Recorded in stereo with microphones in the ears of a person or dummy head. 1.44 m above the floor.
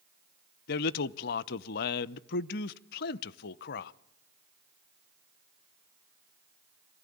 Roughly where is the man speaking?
Left.